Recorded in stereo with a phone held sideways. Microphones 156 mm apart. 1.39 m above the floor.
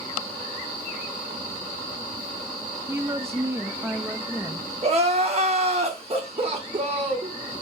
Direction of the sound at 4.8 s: 40° right (ahead or behind).